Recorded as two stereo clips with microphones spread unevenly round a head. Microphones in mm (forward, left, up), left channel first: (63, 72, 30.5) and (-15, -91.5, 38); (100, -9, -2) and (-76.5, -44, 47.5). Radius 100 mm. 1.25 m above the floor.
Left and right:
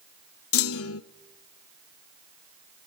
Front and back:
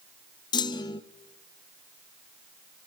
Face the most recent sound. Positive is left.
turn(degrees=85)